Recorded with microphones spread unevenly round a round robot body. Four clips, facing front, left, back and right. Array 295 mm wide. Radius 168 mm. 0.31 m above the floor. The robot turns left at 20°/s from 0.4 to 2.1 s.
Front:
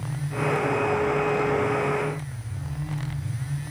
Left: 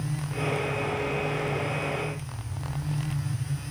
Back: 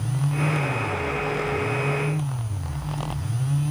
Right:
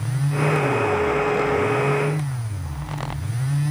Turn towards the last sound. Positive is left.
No sound to turn to.